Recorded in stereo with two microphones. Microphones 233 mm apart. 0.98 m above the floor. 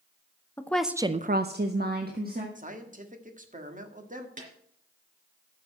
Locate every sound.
0.6 s a woman speaking: 10° left (ahead or behind), 0.9 m; by 2.5 s 40° right (ahead or behind), 1.8 m
2.5 s a man speaking: 35° right (ahead or behind), 1.6 m
4.4 s a snare drum: 35° right (ahead or behind), 3.5 m